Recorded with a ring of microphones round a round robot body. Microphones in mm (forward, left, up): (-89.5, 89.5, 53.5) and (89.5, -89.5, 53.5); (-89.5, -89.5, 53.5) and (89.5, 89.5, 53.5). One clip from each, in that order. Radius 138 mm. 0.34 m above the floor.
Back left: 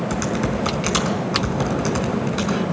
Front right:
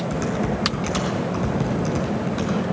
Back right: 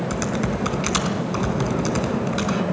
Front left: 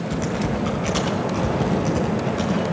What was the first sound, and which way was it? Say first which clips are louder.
Typing on a keyboard: even, front left 3 dB; 165° right.